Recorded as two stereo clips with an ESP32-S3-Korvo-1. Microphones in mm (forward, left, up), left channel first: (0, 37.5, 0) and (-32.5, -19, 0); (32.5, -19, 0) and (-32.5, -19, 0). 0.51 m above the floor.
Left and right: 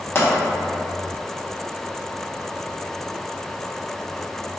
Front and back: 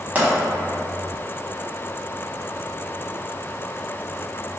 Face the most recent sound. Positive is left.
turn(degrees=110)